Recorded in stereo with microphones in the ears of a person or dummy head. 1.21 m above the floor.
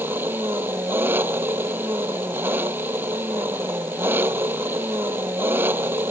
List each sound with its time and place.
0.0 s an engine running: 10° right (ahead or behind)